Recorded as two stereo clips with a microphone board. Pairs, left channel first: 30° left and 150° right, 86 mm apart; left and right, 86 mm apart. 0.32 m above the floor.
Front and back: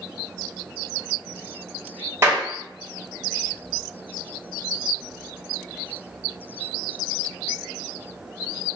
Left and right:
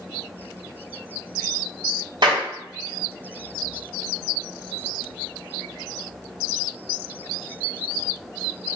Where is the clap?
100° right, 1.8 m.